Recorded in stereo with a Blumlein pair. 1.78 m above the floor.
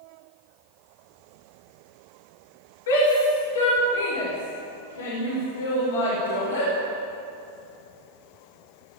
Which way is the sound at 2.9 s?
60° left.